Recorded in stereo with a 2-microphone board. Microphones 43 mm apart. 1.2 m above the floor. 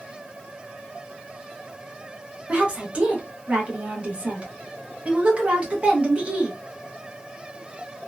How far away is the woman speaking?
About 0.9 m.